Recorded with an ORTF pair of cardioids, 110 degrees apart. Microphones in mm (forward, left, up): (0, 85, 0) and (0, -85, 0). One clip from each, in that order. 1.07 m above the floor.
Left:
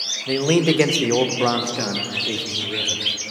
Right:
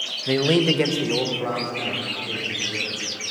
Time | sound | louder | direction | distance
0.3 | a man speaking | even | 15° right | 0.7 m